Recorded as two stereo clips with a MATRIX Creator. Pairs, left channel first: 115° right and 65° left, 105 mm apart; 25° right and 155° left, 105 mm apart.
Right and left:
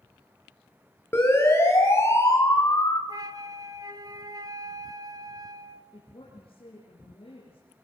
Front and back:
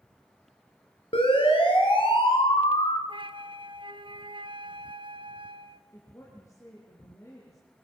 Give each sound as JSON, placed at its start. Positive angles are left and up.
{"t": 1.1, "sound": "a siren", "azimuth_deg": -45, "distance_m": 5.0}
{"t": 3.1, "sound": "a flute", "azimuth_deg": 120, "distance_m": 0.9}
{"t": 5.9, "sound": "a woman speaking", "azimuth_deg": -85, "distance_m": 4.0}